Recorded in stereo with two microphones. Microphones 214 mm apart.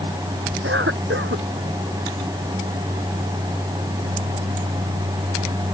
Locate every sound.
0.6 s a cough: 65° right (ahead or behind)